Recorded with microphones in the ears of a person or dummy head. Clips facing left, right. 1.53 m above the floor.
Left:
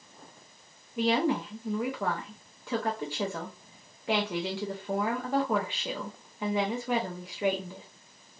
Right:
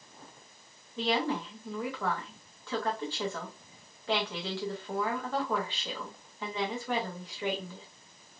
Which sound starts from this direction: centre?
A woman speaking, at 1.0 s.